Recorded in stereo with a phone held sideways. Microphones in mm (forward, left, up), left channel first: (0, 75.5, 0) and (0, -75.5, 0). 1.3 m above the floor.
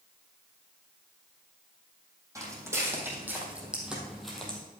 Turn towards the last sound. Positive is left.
turn(degrees=5)  # may be behind; listen again after turning